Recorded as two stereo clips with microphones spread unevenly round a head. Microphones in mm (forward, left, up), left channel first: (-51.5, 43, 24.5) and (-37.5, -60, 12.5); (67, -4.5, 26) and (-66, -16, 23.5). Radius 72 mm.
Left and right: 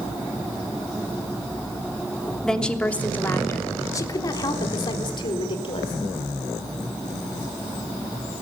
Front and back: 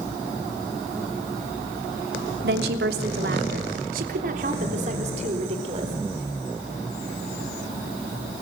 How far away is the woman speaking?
About 3 m.